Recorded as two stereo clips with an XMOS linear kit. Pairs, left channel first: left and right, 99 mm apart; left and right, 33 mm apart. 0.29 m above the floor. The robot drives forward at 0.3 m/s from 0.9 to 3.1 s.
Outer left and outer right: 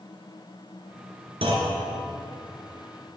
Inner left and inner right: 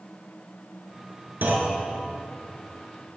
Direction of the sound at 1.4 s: 65° right (ahead or behind).